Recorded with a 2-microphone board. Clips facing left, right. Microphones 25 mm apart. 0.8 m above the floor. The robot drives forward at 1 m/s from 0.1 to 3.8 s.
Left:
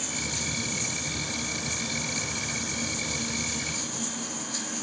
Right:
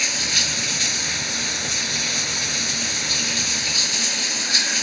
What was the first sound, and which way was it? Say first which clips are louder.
Running water: right 12 dB; 75° right (ahead or behind).